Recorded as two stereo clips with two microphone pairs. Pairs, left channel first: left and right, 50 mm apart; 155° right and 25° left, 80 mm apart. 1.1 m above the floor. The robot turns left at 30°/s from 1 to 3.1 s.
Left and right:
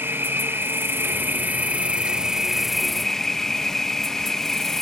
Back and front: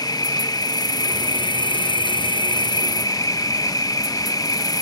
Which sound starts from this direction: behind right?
An insect, at 0.0 s.